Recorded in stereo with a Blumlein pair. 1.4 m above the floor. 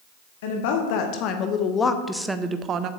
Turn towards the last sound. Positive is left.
turn(degrees=-35)